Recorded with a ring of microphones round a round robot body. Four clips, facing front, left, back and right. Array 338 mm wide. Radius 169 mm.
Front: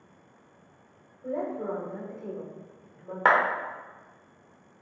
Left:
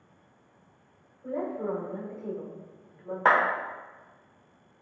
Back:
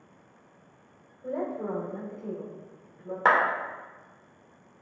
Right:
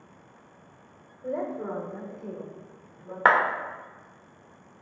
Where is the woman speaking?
80° right, 1.3 m; by 3.1 s 65° left, 1.4 m.